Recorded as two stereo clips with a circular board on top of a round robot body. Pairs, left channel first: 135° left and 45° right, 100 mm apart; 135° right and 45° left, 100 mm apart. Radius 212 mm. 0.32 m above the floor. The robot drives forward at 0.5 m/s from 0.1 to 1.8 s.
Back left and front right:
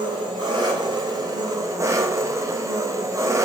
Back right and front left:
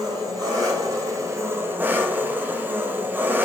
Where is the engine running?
5° right, 1.4 m; by 3.5 s 15° right, 0.8 m.